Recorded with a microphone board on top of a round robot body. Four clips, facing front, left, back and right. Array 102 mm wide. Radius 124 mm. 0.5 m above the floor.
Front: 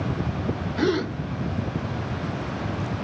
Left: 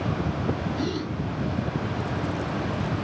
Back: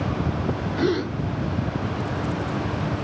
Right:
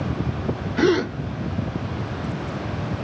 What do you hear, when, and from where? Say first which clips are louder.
0.8 s a gasp: right 10 dB, even; 90° right, 2 m